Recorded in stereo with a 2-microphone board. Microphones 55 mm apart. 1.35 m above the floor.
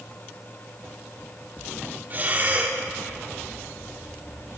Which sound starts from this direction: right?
Breathing, at 2.1 s.